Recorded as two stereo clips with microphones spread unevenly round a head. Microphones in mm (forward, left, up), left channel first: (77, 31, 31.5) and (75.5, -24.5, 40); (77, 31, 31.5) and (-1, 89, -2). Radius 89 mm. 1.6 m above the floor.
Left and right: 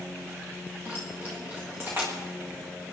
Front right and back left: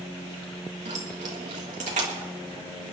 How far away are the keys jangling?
About 1.5 m.